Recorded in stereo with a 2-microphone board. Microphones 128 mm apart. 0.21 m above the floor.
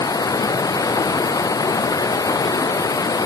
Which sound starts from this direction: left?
Running water, at 0.0 s.